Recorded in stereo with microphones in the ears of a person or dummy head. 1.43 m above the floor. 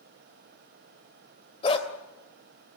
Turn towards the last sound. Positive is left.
turn(degrees=35)  # may be behind; listen again after turning